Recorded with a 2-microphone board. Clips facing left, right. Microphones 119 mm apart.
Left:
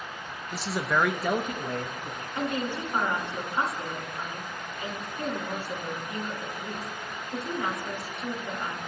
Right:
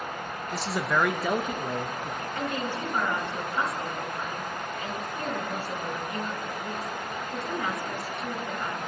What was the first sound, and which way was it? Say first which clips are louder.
A man speaking: even; 5° left (ahead or behind).